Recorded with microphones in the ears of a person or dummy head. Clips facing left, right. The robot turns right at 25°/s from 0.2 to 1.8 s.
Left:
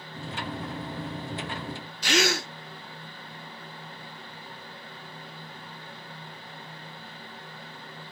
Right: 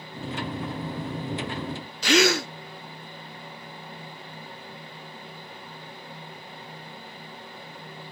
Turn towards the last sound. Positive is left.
turn(degrees=-60)  # may be behind; listen again after turning